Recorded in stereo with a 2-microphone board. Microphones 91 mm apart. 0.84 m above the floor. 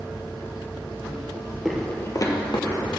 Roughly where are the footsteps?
Centre.